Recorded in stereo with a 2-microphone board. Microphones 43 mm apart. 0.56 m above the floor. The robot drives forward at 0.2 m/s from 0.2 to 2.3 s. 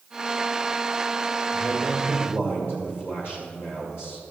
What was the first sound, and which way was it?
A man speaking, 55° left (ahead or behind).